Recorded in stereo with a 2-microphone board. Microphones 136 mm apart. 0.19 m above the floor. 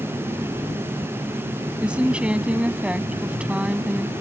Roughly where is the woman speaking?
Centre.